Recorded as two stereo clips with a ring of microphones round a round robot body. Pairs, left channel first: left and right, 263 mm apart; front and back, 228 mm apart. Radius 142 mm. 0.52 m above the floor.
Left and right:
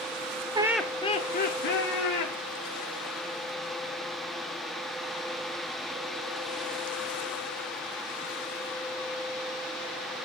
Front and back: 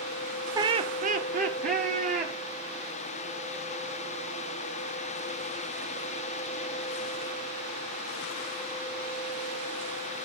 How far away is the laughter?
About 0.7 m.